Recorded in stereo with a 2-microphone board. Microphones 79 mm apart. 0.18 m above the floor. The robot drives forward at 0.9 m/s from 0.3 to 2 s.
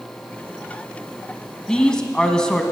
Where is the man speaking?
10° left (ahead or behind), 1.1 m.